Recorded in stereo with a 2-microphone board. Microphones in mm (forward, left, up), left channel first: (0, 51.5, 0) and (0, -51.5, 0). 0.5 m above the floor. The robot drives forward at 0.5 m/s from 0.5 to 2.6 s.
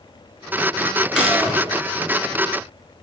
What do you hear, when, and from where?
1.1 s a gunshot: 10° right (ahead or behind), 1.3 m